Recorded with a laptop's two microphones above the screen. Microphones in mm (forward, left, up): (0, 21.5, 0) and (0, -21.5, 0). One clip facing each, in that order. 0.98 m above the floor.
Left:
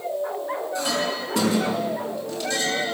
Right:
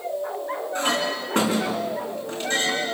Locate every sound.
0.8 s a clink: 40° right (ahead or behind), 6 m